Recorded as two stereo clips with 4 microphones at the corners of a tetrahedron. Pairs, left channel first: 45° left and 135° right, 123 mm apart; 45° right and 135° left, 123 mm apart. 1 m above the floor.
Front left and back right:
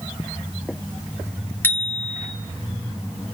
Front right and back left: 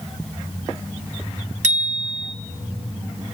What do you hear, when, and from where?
1.6 s a bicycle bell: 120° left, 2 m